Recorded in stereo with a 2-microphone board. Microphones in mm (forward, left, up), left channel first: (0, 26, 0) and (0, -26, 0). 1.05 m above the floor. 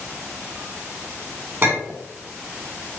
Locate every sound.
1.6 s a clink: 40° right (ahead or behind), 1.9 m